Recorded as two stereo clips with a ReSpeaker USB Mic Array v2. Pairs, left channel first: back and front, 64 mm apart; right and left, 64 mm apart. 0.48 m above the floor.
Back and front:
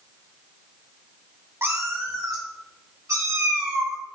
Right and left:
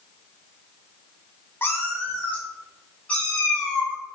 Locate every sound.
1.6 s a cat meowing: 45° right, 0.8 m; by 4.0 s 20° right, 2.5 m